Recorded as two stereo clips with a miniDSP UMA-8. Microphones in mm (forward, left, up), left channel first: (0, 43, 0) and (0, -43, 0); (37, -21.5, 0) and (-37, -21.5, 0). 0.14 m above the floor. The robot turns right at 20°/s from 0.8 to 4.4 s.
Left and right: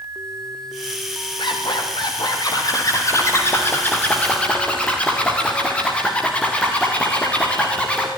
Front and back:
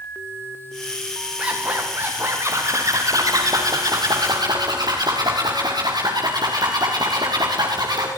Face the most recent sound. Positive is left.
turn(degrees=165)